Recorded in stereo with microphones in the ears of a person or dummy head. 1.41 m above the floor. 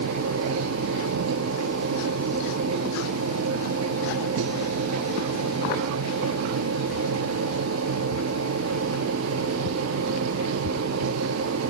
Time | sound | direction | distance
0.0 | a machine running | 80° right | 0.9 m